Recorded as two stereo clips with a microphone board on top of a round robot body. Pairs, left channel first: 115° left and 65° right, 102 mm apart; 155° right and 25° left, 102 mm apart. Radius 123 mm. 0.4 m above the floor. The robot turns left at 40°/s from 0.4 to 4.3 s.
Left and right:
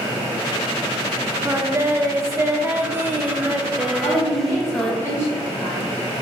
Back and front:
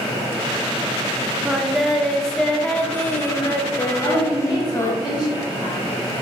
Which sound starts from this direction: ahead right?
Singing, at 1.4 s.